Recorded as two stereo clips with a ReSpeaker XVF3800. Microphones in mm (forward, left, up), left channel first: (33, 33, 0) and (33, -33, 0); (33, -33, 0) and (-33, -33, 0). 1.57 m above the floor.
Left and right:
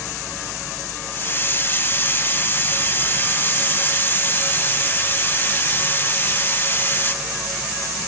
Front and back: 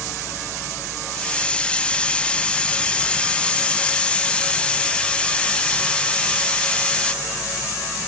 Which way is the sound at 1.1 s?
60° left.